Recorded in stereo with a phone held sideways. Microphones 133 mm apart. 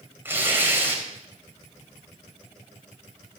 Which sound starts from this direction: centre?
Tearing paper, at 0.2 s.